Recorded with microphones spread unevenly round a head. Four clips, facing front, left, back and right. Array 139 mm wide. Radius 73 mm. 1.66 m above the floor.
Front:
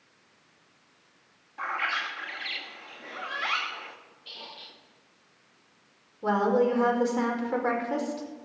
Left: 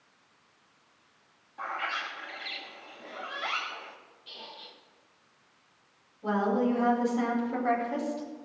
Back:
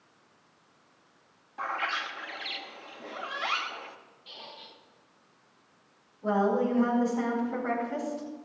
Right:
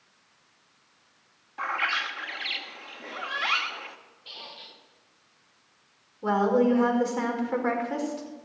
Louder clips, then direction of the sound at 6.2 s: Right 5 dB, front 2 dB; 50° right.